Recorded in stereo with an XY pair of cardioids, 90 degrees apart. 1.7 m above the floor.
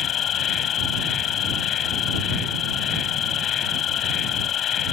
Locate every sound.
0.0 s an insect: 70° left